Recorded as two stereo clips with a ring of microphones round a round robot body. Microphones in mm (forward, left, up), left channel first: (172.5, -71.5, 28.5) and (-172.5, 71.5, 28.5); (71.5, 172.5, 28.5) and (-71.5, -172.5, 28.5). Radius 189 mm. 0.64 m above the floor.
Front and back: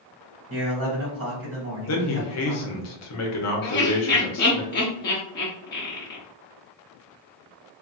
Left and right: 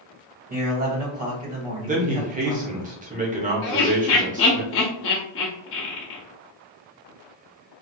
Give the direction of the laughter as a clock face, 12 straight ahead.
11 o'clock.